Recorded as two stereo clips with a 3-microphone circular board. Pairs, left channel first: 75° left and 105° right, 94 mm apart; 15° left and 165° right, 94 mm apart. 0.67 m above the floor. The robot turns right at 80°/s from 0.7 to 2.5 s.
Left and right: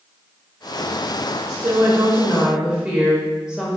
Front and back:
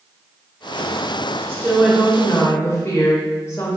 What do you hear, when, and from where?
1.5 s a woman speaking: 110° right, 1.0 m; by 3.8 s 25° right, 1.0 m